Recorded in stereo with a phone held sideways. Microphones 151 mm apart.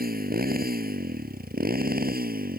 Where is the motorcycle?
85° right.